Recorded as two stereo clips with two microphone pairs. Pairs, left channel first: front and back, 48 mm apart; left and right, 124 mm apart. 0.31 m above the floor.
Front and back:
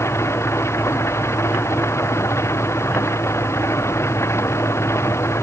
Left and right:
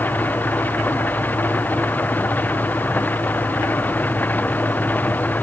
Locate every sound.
0.0 s an engine running: 15° left